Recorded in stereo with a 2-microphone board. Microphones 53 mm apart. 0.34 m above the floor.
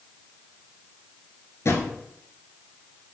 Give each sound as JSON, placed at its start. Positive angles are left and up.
{"t": 1.6, "sound": "a drawer", "side_deg": 60, "distance_m": 1.3}